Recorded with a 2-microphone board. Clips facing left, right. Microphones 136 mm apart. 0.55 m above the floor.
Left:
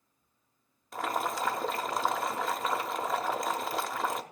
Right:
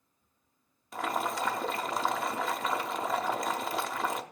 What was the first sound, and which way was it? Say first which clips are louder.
Boiling: even; centre (ahead or behind).